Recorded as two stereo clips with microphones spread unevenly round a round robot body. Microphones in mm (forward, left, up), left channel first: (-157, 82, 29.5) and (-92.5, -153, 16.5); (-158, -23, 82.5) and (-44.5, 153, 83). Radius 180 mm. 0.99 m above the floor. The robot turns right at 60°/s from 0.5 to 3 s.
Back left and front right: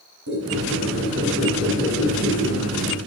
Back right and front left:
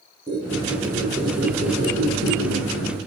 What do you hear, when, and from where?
0.3 s a squeak: 50° right, 4.5 m; by 3.0 s 95° left, 4.5 m